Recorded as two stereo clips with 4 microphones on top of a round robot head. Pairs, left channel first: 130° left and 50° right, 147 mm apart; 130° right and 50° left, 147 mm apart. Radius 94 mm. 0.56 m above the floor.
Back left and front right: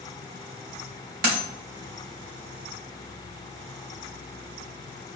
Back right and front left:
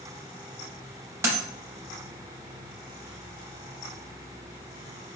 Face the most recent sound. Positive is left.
turn(degrees=-20)